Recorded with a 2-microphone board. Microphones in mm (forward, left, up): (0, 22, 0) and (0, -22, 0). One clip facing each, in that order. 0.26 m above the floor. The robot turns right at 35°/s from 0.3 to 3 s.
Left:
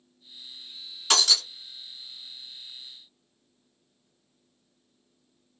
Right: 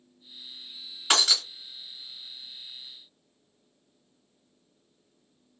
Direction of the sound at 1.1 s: 20° right (ahead or behind).